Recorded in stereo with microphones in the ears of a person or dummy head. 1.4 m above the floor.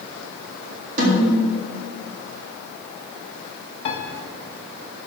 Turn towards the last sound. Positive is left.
turn(degrees=30)  # may be behind; listen again after turning